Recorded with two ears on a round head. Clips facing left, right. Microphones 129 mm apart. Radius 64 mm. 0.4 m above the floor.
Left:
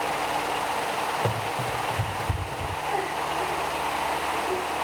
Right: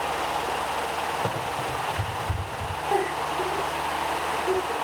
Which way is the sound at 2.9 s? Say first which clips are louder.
Right 4 dB; 65° right (ahead or behind).